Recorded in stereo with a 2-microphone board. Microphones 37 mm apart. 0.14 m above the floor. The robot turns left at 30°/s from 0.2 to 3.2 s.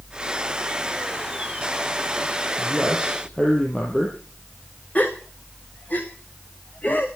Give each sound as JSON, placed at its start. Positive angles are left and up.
{"t": 2.6, "sound": "a man speaking", "side_deg": 5, "distance_m": 4.0}
{"t": 5.0, "sound": "a gasp", "side_deg": 40, "distance_m": 2.5}